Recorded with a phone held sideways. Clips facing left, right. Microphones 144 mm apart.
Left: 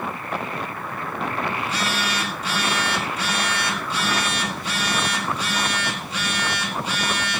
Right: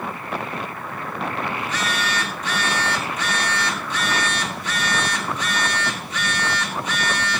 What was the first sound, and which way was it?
A phone buzzing, 30° left (ahead or behind).